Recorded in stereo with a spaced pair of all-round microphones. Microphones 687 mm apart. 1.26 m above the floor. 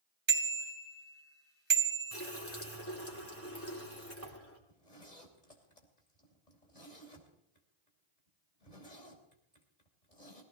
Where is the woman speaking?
I don't hear a woman speaking.